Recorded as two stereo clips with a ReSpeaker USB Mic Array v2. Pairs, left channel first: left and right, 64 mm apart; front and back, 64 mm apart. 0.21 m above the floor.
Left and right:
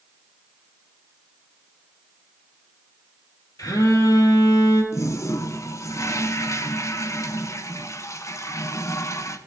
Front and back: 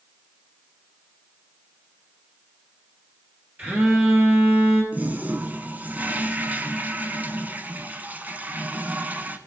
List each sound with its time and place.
3.6 s a phone buzzing: 120° left, 3.5 m
4.9 s a toilet flushing: 120° left, 0.8 m